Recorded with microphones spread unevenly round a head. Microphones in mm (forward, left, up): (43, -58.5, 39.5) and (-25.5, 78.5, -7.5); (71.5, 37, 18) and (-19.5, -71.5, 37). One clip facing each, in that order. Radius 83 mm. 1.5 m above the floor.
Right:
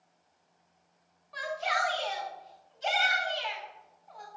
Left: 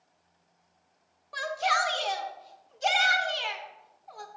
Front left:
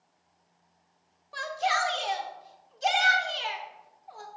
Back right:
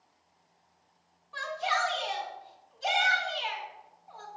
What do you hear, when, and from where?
1.3 s a shout: 95° left, 1.1 m